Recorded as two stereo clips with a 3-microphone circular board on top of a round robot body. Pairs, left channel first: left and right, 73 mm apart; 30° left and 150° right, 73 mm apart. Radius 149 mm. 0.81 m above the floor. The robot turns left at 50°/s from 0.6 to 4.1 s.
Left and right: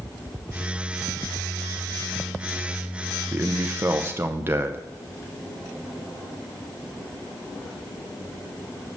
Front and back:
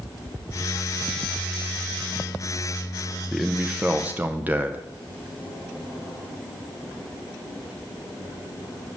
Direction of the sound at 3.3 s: 65° right.